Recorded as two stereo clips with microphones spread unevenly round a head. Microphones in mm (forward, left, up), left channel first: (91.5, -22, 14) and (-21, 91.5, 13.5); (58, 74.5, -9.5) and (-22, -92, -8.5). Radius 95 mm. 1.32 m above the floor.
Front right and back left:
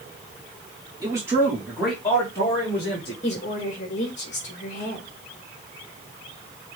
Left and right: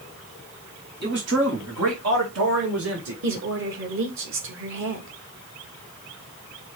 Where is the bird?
I don't hear a bird.